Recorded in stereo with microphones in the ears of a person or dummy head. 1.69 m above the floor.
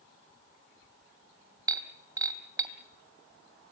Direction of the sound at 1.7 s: 15° right (ahead or behind).